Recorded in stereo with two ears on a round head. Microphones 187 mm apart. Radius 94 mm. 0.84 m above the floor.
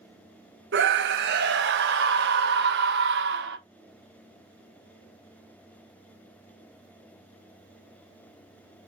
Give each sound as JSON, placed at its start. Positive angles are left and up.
{"t": 0.7, "sound": "a scream", "side_deg": -55, "distance_m": 1.1}